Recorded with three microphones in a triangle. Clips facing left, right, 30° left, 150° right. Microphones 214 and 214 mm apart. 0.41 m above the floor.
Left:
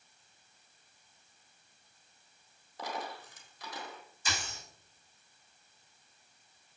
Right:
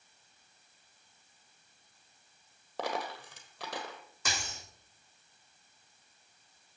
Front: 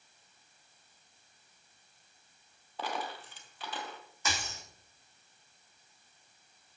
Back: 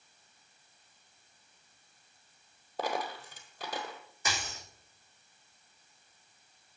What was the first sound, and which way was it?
A dropped coin, 100° right.